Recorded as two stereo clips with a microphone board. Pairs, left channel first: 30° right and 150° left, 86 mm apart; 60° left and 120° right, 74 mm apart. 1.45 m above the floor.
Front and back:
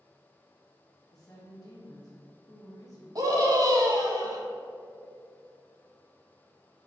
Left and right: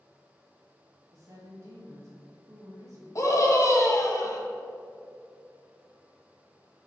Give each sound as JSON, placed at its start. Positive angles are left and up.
{"t": 1.1, "sound": "a woman speaking", "azimuth_deg": -75, "distance_m": 1.7}
{"t": 3.1, "sound": "a scream", "azimuth_deg": 105, "distance_m": 1.8}